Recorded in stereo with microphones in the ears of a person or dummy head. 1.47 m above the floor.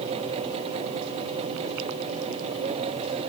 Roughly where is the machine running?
Right.